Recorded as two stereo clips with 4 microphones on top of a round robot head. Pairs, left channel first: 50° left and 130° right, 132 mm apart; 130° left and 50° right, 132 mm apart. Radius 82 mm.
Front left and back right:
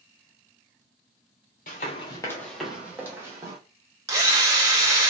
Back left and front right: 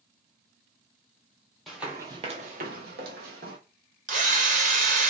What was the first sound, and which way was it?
Running footsteps, 45° left.